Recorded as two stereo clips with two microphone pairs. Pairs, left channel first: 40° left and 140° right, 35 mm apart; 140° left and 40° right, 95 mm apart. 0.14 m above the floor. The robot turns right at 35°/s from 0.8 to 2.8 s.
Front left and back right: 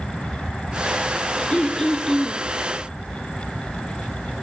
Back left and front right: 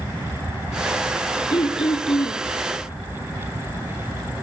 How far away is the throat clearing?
About 2.5 m.